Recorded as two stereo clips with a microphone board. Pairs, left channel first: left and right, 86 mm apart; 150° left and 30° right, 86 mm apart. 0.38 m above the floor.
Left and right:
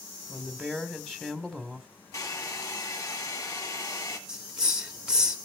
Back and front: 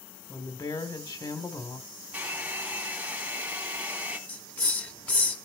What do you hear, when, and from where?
0.3 s a woman speaking: 175° left, 1.9 m
2.1 s a hair dryer: 40° left, 2.0 m
4.3 s a hiss: 160° right, 1.3 m